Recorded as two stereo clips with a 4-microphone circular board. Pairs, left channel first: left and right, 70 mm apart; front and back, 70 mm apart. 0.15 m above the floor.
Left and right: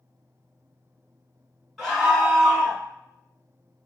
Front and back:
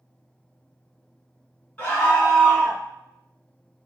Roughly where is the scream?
Ahead.